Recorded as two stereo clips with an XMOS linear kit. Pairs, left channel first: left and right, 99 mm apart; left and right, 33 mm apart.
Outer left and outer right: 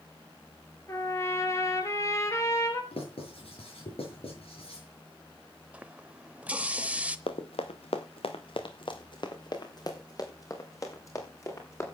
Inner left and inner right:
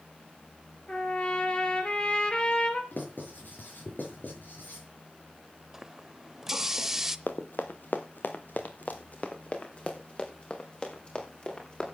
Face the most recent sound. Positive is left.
turn(degrees=30)  # may be behind; listen again after turning